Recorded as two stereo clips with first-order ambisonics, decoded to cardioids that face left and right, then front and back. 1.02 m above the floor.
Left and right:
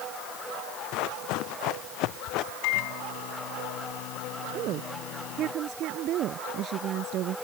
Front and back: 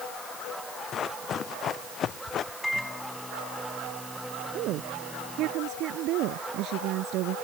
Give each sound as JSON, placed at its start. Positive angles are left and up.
{"t": 0.9, "sound": "running footsteps", "azimuth_deg": 60}
{"t": 2.6, "sound": "a microwave", "azimuth_deg": 85}
{"t": 4.5, "sound": "a woman speaking", "azimuth_deg": -140}